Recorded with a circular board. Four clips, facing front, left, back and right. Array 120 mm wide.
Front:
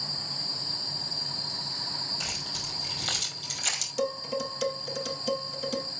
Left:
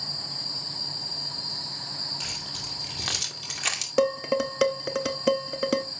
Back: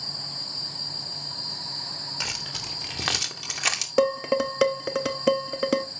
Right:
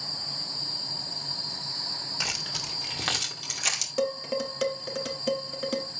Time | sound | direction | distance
2.2 | keys jangling | 140° right | 3 m
4.0 | dishes clattering | 150° left | 0.9 m